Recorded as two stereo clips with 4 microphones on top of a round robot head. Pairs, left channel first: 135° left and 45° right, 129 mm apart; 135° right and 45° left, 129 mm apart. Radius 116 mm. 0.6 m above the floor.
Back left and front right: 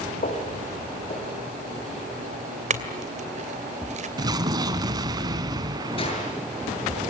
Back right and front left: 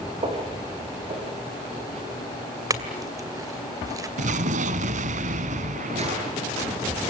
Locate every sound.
0.2 s footsteps: 100° left, 6 m; by 2.0 s 90° left, 7 m
2.7 s a clink: 15° right, 2.5 m
4.2 s an explosion: 15° left, 1.2 m
6.0 s a gunshot: 85° left, 8 m